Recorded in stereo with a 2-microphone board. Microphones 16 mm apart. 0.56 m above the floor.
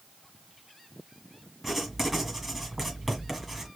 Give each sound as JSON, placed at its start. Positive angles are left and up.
{"t": 1.6, "sound": "writing", "side_deg": -20, "distance_m": 1.8}